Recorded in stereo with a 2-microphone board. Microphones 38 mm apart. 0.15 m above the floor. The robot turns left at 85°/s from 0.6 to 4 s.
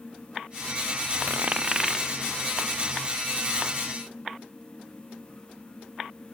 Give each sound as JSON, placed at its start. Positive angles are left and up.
{"t": 1.3, "sound": "a dropped coin", "side_deg": -55}